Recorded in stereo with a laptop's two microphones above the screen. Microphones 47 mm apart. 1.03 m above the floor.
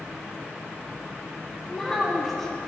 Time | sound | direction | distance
1.7 | a child speaking | 10° left (ahead or behind) | 2.5 m